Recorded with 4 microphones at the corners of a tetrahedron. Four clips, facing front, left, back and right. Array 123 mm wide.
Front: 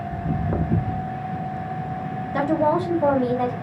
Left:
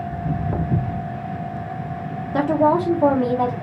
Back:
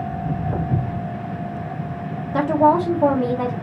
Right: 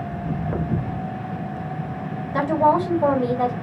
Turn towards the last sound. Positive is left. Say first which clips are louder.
# left 1 dB, back 4 dB
turn(degrees=140)